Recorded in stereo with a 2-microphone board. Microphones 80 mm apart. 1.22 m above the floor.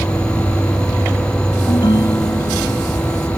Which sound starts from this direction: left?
A ringtone, at 1.7 s.